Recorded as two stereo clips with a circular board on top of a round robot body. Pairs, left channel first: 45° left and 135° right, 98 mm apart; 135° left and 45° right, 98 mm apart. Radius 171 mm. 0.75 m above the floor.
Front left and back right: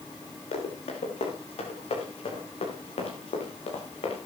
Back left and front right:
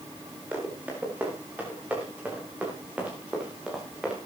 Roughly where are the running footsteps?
Ahead left.